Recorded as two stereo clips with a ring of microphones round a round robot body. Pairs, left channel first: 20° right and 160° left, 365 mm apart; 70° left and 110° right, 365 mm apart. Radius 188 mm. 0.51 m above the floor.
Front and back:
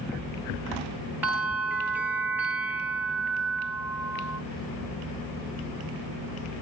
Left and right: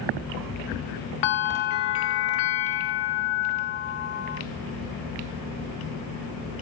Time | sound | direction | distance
1.2 | a bell | 70° left | 0.7 m